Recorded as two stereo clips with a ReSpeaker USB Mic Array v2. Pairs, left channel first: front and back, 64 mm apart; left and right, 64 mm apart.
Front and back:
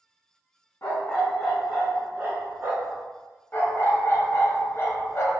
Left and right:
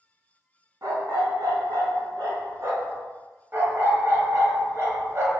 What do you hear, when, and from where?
0.8 s a dog barking: 55° right, 0.7 m; by 3.0 s 130° right, 1.2 m
3.5 s a dog barking: 45° right, 0.7 m